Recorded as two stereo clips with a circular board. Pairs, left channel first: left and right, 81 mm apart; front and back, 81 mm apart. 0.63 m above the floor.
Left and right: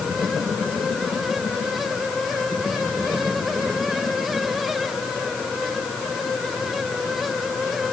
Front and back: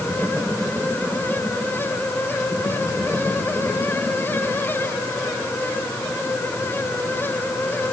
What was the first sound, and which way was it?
Only background noise.